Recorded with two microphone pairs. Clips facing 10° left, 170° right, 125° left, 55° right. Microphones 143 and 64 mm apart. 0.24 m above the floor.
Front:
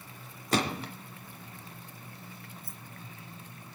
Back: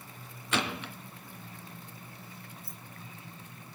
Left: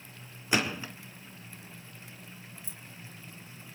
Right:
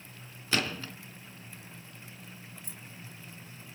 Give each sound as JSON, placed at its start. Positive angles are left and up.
{"t": 0.5, "sound": "a gunshot", "azimuth_deg": 50, "distance_m": 2.5}
{"t": 2.6, "sound": "keys jangling", "azimuth_deg": -25, "distance_m": 3.0}